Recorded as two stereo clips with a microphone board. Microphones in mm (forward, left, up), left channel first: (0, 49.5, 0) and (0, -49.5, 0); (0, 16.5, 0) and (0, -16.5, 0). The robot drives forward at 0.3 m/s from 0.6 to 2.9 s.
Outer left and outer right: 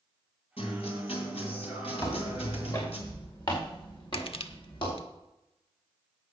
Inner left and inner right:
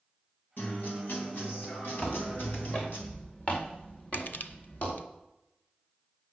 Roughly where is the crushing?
Left.